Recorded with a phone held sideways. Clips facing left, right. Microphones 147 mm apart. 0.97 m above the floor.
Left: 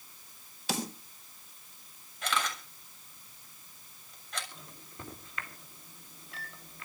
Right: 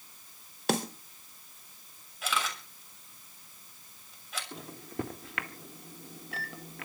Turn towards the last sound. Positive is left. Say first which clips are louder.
# right 13 dB
turn(degrees=-75)  # may be behind; listen again after turning